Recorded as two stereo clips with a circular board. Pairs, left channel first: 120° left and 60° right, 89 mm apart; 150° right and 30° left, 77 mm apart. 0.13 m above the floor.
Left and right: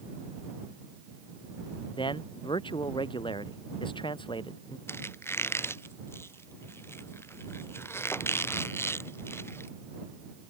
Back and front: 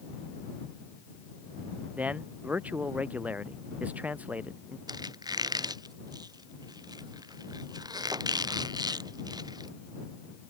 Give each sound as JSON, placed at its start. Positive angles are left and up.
{"t": 2.0, "sound": "a man speaking", "azimuth_deg": 100}
{"t": 4.9, "sound": "a squeak", "azimuth_deg": 60}